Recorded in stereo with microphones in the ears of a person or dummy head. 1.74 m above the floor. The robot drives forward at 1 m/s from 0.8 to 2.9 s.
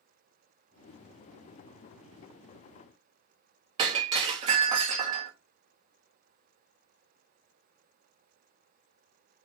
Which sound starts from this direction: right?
Breaking glass, at 3.8 s.